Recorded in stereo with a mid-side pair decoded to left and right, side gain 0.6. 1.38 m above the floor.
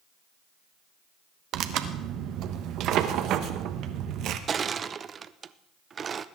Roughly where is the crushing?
Ahead right.